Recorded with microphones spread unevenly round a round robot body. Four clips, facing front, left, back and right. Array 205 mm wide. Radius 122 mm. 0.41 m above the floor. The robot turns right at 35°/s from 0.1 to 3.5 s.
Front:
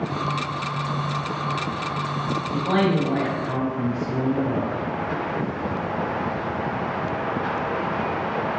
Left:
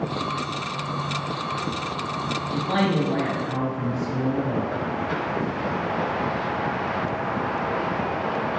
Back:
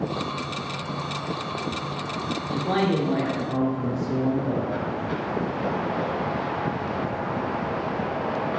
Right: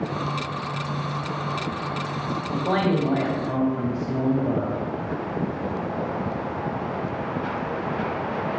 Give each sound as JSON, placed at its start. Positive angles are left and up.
{"t": 2.5, "sound": "a man speaking", "azimuth_deg": -100, "distance_m": 3.0}